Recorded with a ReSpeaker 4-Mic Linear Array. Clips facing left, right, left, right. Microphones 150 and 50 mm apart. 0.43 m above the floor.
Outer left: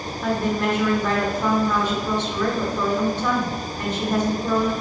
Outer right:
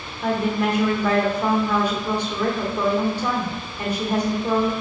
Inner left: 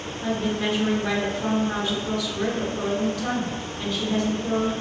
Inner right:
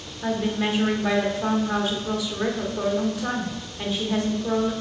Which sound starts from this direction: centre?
A woman speaking, at 0.2 s.